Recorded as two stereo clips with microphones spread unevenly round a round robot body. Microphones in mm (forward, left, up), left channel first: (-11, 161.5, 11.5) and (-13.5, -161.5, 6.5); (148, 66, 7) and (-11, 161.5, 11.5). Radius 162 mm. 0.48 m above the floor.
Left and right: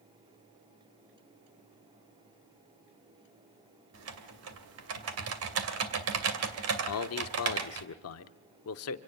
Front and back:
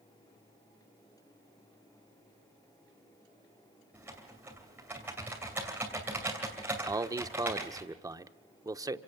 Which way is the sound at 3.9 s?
130° right.